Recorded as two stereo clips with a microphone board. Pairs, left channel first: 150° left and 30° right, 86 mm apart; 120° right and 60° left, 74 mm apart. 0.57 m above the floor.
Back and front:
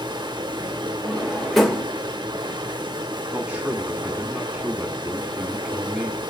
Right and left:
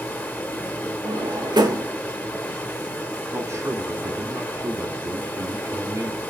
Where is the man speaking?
40° left, 1.5 m.